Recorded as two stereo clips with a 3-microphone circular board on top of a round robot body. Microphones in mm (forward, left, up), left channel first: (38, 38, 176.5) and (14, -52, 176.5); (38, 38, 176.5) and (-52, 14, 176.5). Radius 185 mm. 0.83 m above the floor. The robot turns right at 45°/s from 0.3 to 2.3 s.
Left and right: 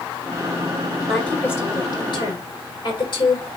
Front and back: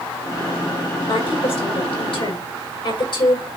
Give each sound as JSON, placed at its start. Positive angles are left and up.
{"t": 1.1, "sound": "a woman speaking", "azimuth_deg": -10, "distance_m": 5.5}